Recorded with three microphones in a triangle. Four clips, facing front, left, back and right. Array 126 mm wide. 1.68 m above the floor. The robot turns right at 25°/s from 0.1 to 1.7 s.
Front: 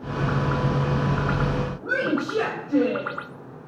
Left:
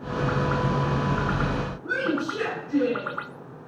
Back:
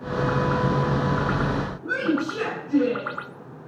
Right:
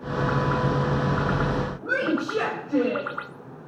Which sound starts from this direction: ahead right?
A woman speaking, at 1.8 s.